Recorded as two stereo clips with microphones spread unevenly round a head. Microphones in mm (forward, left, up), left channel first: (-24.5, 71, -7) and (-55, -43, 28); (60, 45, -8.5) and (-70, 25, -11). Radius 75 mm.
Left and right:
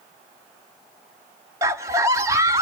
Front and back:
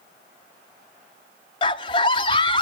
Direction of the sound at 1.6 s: 45° right.